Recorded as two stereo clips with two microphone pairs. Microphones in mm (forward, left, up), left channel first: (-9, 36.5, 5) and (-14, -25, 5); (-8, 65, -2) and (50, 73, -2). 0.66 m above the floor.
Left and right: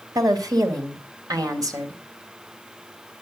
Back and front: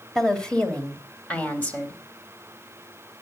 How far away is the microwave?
I don't hear a microwave.